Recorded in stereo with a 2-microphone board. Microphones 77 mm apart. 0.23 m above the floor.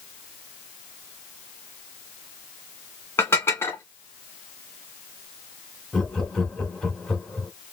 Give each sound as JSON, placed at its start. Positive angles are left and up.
{"t": 3.2, "sound": "dishes clattering", "side_deg": 35, "distance_m": 1.6}
{"t": 5.9, "sound": "laughter", "side_deg": 10, "distance_m": 1.4}